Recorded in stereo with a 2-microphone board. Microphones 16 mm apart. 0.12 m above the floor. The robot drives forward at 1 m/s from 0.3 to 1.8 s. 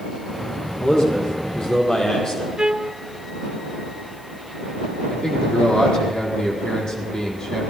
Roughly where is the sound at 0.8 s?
Left.